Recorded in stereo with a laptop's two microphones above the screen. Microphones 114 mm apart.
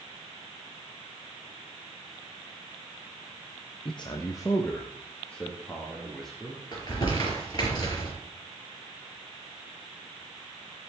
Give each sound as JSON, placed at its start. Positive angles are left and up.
{"t": 3.9, "sound": "a man speaking", "side_deg": 45, "distance_m": 0.7}
{"t": 6.7, "sound": "crumpling", "side_deg": 35, "distance_m": 4.5}